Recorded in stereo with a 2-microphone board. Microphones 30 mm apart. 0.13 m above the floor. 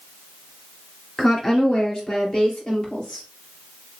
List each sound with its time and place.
1.2 s a woman speaking: 10° left (ahead or behind), 2.5 m; by 3.2 s 25° left (ahead or behind), 3.5 m